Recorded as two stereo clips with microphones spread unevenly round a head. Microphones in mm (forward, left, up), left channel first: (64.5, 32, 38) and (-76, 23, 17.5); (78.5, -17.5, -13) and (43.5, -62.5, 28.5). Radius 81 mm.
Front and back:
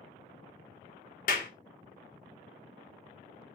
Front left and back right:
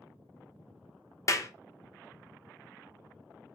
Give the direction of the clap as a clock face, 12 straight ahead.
12 o'clock.